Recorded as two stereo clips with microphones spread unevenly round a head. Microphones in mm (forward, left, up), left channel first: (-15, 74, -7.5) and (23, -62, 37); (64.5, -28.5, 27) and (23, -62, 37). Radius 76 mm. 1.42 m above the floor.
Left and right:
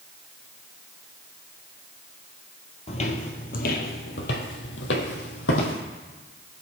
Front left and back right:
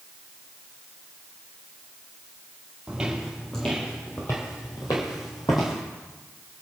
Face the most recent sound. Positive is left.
turn(degrees=95)